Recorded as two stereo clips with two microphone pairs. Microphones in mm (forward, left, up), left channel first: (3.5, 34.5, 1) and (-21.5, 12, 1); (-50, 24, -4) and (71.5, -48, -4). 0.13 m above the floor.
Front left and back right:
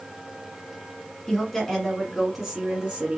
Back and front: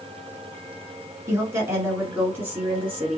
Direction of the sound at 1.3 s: 10° left.